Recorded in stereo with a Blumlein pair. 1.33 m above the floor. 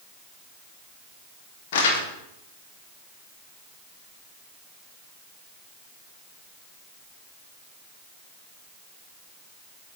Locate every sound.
1.7 s crumpling: 55° left, 1.1 m